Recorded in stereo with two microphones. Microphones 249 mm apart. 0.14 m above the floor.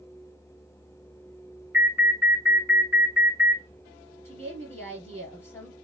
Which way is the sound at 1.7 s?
10° right (ahead or behind).